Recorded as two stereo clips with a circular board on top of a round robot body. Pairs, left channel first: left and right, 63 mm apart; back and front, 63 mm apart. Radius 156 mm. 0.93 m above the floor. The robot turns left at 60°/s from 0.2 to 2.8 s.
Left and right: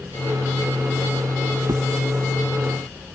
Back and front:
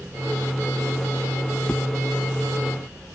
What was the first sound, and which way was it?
A drawer, 105° right.